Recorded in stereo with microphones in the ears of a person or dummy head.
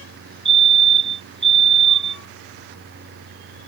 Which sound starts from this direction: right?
A fire alarm, at 0.5 s.